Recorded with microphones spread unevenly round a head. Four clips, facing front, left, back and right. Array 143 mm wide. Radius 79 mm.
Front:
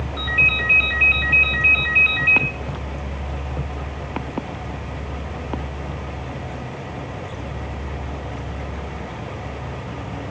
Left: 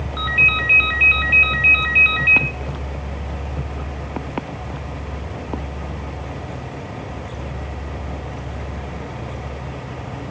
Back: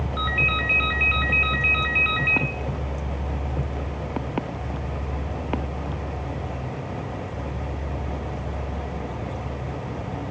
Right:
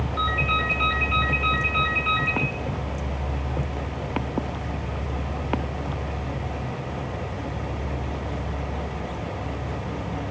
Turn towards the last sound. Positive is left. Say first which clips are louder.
# left 2 dB, front 1 dB
turn(degrees=110)